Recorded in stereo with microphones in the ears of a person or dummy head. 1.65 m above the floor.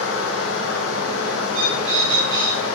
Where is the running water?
70° left (ahead or behind), 1.6 m.